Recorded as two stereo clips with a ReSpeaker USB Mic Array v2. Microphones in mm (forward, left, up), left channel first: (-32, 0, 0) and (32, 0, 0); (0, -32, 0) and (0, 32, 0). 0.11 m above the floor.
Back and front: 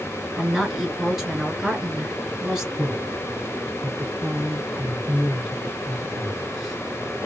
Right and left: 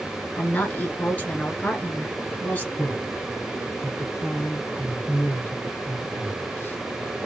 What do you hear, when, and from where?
0.4 s a woman speaking: 75° right, 1.1 m
2.8 s a man speaking: 85° right, 1.5 m